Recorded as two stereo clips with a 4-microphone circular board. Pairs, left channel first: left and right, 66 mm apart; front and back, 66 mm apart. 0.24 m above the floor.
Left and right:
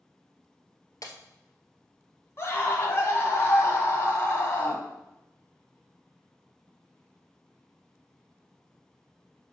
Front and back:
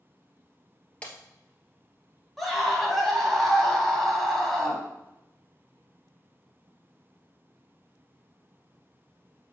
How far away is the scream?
About 1.2 m.